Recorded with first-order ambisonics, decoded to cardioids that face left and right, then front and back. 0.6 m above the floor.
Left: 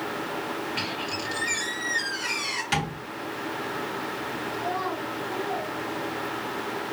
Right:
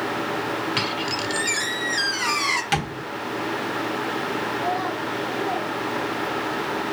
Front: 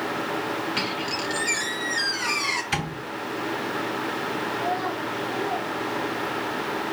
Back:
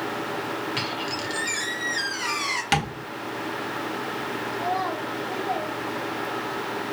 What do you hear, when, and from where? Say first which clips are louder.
0.8 s a squeak: right 5 dB, front 1 dB; 95° right, 1.2 m
2.7 s tapping: right 3 dB, back 4 dB; 160° right, 1.5 m
4.5 s a child speaking: right 4 dB, back 3 dB; 155° right, 3.5 m